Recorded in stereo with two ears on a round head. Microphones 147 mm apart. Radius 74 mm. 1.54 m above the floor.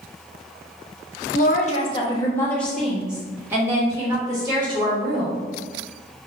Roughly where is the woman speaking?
Left.